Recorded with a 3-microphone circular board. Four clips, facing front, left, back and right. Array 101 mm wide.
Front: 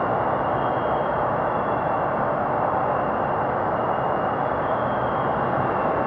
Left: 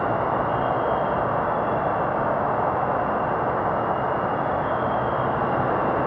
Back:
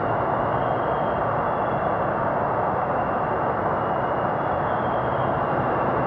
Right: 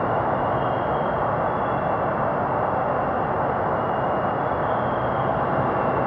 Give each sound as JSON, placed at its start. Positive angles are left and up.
{"t": 0.0, "sound": "an insect", "azimuth_deg": -25, "distance_m": 1.0}